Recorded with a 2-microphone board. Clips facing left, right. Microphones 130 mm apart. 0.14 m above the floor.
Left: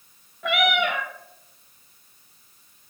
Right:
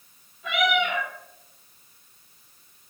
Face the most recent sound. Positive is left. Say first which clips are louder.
# left 1 dB
turn(degrees=60)  # may be behind; listen again after turning